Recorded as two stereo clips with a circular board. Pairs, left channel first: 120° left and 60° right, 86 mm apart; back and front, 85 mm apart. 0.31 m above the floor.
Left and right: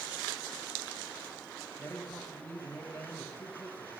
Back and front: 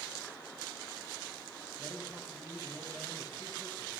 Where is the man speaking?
115° left, 1.5 m.